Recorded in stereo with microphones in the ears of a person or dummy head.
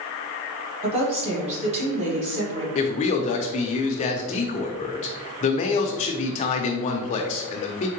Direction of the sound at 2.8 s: 40° left (ahead or behind).